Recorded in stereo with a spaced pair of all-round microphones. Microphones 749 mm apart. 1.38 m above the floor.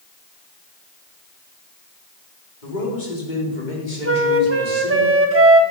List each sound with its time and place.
2.6 s a man speaking: 85° left, 4.5 m; by 5.0 s 70° left (ahead or behind), 5 m
4.0 s a flute: 15° right (ahead or behind), 1.3 m